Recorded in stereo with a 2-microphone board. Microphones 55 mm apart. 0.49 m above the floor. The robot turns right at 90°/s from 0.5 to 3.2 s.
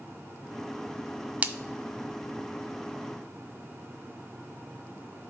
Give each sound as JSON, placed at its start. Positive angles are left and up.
{"t": 1.4, "sound": "a splash", "side_deg": -25, "distance_m": 0.5}